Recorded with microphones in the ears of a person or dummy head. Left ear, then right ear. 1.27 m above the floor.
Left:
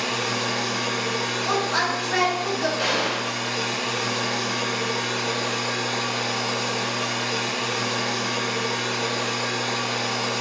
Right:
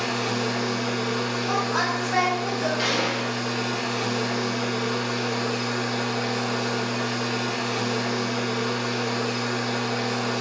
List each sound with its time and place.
0.0 s a machine running: 70° left (ahead or behind), 2 m
1.4 s a woman speaking: 45° left (ahead or behind), 1.9 m
2.8 s a gunshot: 5° right (ahead or behind), 1.1 m